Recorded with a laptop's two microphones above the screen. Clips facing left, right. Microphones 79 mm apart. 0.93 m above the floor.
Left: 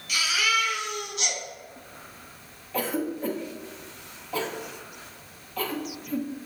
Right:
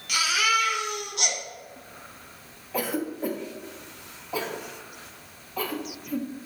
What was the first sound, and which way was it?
A baby crying, 75° right (ahead or behind).